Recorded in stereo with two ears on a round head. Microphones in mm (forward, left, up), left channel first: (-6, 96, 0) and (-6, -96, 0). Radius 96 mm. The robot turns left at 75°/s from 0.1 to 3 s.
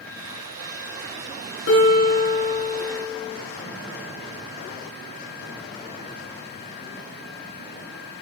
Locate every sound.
1.7 s a guitar: 120° left, 5 m; by 3.4 s 20° left, 5 m